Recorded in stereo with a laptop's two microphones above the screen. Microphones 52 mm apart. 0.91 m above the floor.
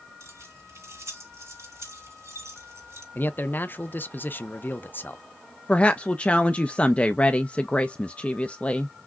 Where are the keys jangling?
85° right, 3 m.